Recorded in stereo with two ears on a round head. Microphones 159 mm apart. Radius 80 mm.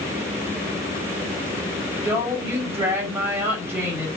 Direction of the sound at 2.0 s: 15° right (ahead or behind).